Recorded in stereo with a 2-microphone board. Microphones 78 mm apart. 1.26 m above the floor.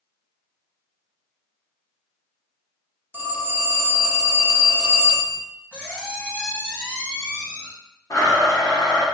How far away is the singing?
No singing in this recording.